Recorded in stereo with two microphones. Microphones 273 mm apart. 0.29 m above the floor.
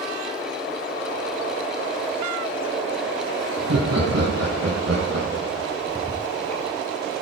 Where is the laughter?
65° right (ahead or behind), 2.5 m; by 5.7 s 70° right (ahead or behind), 4 m.